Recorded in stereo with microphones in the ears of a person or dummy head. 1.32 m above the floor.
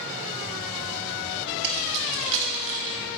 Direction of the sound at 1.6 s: 60° right (ahead or behind).